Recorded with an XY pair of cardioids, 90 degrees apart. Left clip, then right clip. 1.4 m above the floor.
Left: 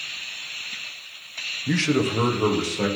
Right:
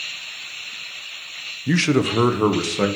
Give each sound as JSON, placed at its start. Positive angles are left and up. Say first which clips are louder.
{"t": 1.7, "sound": "a man speaking", "louder": "right 4 dB", "azimuth_deg": -30, "distance_m": 0.8}